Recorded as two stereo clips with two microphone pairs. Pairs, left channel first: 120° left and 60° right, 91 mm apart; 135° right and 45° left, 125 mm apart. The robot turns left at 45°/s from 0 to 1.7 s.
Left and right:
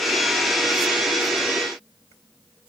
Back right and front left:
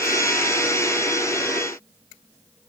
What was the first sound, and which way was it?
Only background noise.